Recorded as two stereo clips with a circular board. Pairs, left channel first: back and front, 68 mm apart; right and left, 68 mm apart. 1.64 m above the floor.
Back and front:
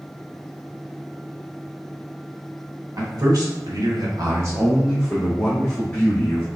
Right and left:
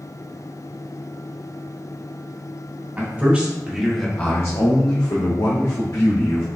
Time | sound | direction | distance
3.0 | a man speaking | 30° left | 1.6 m